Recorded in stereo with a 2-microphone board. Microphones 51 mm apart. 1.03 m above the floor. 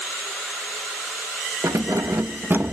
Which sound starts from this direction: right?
Keys jangling, at 1.6 s.